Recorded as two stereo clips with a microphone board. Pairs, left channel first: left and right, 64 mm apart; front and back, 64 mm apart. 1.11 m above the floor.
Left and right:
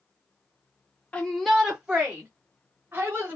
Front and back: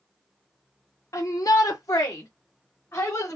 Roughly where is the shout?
Ahead left.